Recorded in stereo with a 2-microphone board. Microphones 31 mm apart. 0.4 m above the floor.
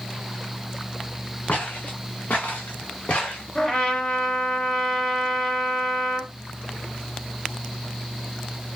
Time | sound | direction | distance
1.5 | footsteps | 70° left (ahead or behind) | 2 m
3.5 | a trumpet | 30° left (ahead or behind) | 1.3 m